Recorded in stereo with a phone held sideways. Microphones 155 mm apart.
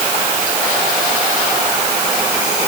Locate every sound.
Only background noise.